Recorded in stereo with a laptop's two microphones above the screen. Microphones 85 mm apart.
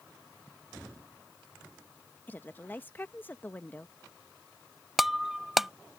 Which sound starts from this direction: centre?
Breaking glass, at 5.0 s.